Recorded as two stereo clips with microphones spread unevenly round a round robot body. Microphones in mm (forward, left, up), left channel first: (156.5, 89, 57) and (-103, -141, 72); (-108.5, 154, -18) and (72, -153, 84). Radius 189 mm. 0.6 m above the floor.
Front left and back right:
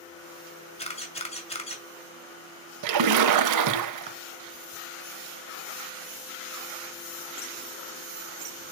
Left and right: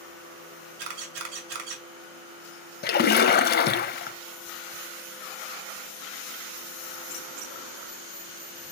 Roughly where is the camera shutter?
Ahead right.